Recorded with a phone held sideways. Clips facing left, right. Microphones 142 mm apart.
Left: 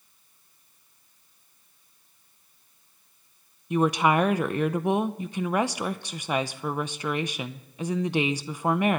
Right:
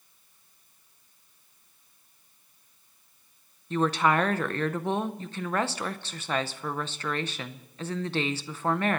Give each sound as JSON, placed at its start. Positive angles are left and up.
{"t": 3.7, "sound": "a woman speaking", "side_deg": 15, "distance_m": 0.6}